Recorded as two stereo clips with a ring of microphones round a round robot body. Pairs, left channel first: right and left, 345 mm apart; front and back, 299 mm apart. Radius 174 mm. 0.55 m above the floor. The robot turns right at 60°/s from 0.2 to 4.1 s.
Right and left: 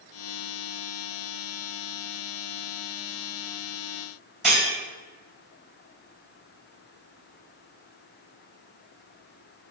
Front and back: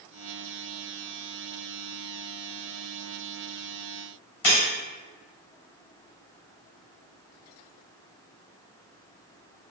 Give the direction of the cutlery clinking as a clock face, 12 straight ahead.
12 o'clock.